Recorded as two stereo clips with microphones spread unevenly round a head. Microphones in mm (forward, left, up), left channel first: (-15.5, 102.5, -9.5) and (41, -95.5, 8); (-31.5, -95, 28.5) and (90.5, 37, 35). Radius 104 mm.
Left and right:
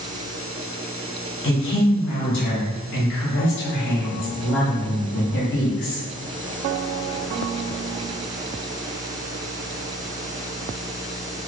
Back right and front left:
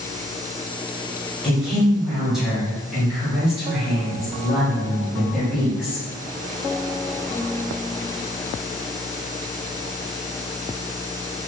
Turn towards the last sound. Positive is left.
turn(degrees=135)